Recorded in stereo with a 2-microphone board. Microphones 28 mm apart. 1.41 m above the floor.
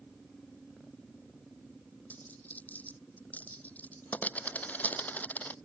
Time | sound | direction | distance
2.1 | a dropped coin | 75° left (ahead or behind) | ?